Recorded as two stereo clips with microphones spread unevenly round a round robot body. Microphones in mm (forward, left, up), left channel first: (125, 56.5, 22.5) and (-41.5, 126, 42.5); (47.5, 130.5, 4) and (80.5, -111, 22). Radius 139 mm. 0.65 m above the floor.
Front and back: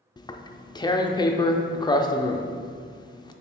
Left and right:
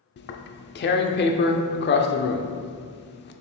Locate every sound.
0.2 s tearing paper: 50° left, 0.6 m